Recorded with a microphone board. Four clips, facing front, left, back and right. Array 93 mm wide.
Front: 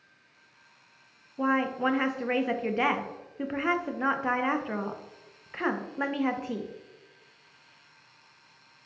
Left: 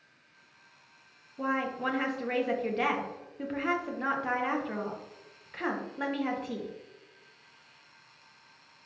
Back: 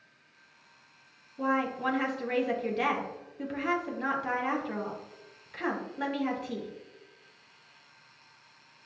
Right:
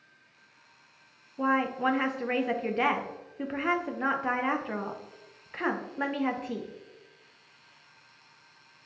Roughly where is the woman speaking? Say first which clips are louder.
Right 4 dB, front 3 dB; ahead right.